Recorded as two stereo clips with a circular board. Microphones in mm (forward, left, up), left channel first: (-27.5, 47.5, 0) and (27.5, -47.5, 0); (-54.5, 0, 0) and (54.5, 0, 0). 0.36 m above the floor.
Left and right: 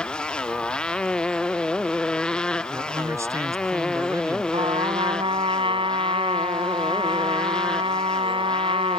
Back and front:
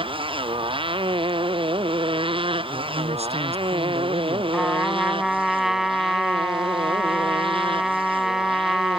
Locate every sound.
0.0 s a motorcycle: 40° left; by 9.0 s 35° left
2.7 s a man speaking: straight ahead
4.5 s a trumpet: 85° right